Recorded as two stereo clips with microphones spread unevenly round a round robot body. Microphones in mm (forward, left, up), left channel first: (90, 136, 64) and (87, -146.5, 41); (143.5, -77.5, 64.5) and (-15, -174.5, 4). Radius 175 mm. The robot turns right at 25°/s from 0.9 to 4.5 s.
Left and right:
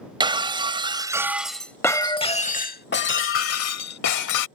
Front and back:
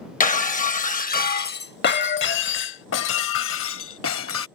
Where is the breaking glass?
15° right; by 4.5 s 75° left.